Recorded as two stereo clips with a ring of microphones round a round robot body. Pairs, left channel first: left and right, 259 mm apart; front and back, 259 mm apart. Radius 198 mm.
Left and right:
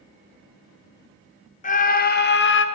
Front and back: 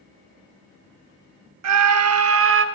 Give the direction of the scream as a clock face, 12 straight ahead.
7 o'clock.